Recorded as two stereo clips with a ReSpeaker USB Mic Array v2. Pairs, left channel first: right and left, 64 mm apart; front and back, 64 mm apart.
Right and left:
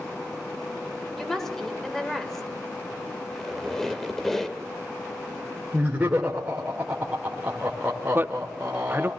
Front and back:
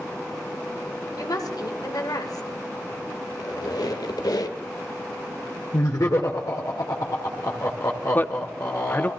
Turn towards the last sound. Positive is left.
turn(degrees=45)